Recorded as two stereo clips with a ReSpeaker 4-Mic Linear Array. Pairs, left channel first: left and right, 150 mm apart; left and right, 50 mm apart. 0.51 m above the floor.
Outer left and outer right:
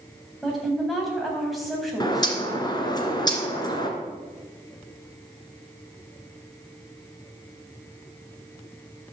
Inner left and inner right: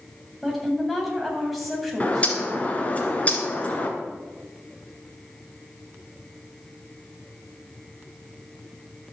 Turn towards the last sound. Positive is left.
turn(degrees=30)  # may be behind; listen again after turning